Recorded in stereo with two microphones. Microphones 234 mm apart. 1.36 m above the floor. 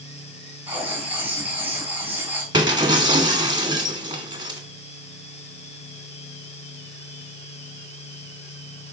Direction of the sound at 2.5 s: 20° right (ahead or behind).